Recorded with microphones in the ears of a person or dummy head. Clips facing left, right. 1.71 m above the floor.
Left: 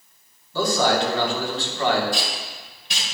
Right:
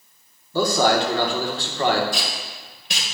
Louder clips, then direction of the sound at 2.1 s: Left 1 dB; 50° right (ahead or behind).